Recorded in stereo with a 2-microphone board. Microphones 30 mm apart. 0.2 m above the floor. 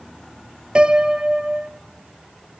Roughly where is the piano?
Right.